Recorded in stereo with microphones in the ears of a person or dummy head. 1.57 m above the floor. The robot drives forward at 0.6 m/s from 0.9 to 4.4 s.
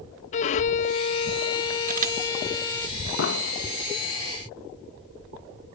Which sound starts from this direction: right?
A camera shutter, at 1.9 s.